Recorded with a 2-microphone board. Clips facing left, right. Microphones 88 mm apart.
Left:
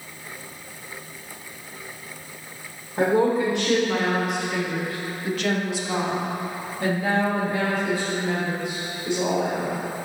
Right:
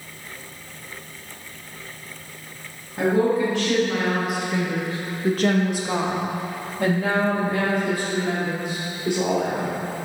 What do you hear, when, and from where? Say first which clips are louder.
3.0 s a woman speaking: even; 25° left (ahead or behind), 1.2 m; by 9.8 s 55° right (ahead or behind), 3 m